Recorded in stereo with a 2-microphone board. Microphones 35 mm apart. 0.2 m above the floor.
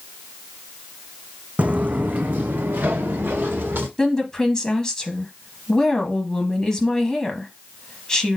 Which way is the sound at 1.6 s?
45° right (ahead or behind).